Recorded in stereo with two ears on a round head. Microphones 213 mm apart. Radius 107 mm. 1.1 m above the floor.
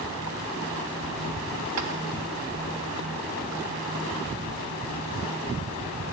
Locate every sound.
1.8 s tapping: 75° right (ahead or behind), 1.7 m